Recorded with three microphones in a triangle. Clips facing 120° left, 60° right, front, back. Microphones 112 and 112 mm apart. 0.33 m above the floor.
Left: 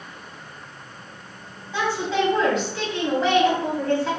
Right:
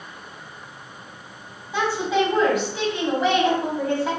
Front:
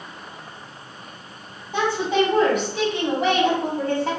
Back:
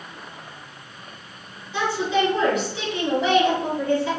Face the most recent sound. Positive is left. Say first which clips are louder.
# right 2 dB, front 2 dB
turn(degrees=15)